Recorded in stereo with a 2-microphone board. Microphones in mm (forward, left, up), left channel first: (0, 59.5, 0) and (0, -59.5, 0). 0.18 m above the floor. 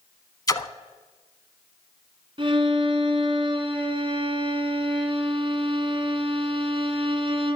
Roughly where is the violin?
Right.